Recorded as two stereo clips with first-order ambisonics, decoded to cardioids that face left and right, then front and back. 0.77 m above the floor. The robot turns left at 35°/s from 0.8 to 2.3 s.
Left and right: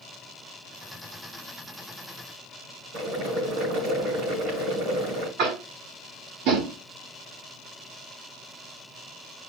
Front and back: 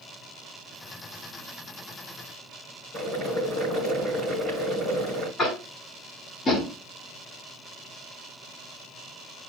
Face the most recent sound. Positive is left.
turn(degrees=-75)